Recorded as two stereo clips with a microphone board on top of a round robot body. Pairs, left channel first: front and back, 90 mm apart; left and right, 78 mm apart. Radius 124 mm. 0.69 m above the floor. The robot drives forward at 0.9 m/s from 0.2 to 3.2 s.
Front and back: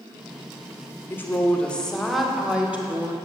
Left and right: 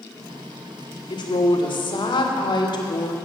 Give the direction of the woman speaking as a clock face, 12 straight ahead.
10 o'clock.